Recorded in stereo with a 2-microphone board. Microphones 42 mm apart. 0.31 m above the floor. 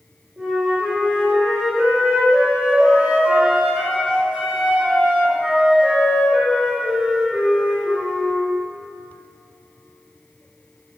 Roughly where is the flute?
Right.